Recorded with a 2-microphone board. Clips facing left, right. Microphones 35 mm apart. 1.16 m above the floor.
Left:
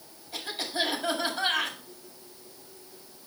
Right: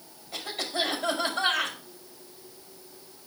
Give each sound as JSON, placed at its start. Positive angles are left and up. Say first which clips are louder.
{"t": 0.3, "sound": "a cough", "louder": "right 1 dB", "side_deg": -75, "distance_m": 5.5}